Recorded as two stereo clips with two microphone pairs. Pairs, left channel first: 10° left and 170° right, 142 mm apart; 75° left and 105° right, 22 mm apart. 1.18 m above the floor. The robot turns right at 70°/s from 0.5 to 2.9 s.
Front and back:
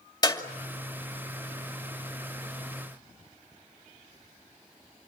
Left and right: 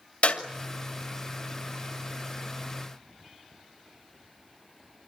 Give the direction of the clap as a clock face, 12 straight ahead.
9 o'clock.